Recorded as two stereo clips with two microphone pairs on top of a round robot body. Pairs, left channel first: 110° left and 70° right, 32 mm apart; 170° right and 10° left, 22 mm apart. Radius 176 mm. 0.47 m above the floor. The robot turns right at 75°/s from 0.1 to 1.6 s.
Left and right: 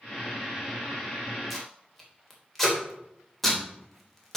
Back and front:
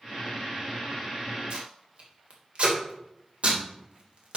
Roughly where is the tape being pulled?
Ahead.